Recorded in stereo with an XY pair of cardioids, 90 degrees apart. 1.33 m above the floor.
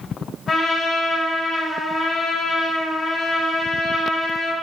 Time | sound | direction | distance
0.5 | a trumpet | 35° left | 1.4 m